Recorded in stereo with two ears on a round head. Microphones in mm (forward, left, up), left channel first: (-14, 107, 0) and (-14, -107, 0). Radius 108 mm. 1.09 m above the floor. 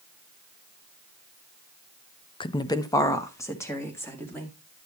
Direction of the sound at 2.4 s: 20° left (ahead or behind).